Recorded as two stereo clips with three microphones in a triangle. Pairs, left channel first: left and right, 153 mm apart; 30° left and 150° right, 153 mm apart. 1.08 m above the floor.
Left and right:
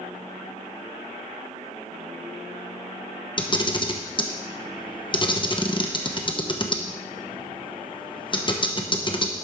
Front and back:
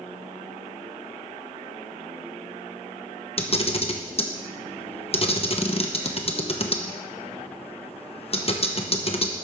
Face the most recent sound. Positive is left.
turn(degrees=50)